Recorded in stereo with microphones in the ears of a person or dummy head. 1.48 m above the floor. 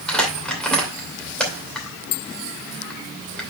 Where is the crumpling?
Centre (ahead or behind), 2.5 m.